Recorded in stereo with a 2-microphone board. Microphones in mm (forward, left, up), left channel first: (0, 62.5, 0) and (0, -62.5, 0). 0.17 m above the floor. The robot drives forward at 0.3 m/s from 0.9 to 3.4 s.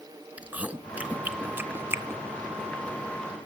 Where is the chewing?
15° right (ahead or behind), 0.8 m; by 2.2 s 20° right (ahead or behind), 0.5 m.